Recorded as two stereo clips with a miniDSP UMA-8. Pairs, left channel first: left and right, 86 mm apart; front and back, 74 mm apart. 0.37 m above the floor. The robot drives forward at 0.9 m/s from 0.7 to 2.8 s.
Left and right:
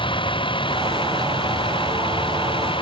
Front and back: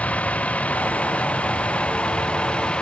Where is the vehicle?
70° left; by 2.8 s 75° left.